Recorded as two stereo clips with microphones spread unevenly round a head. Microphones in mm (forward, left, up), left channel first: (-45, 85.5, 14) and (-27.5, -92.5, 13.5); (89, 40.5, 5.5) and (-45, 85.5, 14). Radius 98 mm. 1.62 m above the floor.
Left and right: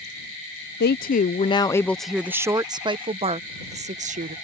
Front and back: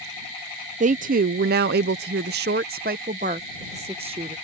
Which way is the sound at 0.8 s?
125° left.